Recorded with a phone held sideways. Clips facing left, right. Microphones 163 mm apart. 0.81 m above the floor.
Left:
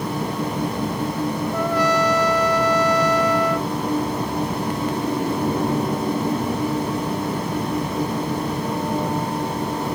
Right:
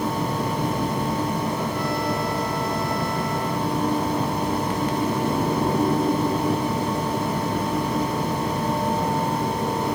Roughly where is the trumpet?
Left.